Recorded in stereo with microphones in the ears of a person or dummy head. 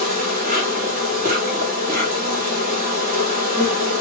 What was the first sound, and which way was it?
An insect, 45° right (ahead or behind).